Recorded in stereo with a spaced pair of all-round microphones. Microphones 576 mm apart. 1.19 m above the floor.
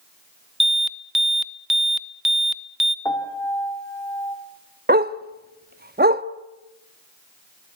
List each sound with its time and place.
0.6 s an alarm: centre (ahead or behind), 0.9 m
3.0 s a piano: 5° left (ahead or behind), 3 m
4.9 s a dog barking: 15° right (ahead or behind), 0.7 m